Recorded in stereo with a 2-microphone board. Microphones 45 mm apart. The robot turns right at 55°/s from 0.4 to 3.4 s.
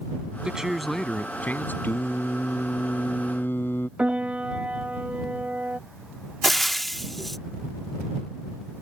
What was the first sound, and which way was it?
A man speaking, 20° right.